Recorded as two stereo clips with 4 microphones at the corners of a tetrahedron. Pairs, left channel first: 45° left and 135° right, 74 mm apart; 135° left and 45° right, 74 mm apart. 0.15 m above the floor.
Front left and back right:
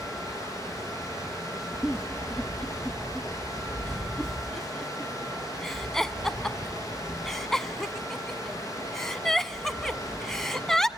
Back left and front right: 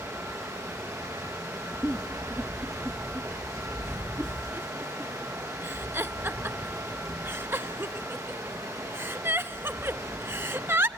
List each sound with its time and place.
0.0 s running water: straight ahead, 5.5 m
1.8 s a giggle: 35° right, 0.6 m